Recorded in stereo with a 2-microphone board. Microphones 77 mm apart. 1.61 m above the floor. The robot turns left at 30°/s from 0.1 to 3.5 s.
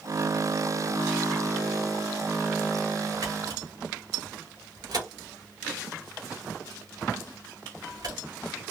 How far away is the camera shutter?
About 3 m.